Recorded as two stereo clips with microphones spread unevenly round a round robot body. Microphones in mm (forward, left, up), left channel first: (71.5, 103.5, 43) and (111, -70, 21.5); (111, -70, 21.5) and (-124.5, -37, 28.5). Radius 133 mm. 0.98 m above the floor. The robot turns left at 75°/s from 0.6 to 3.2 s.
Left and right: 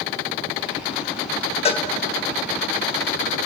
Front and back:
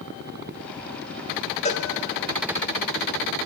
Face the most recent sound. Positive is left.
turn(degrees=-60)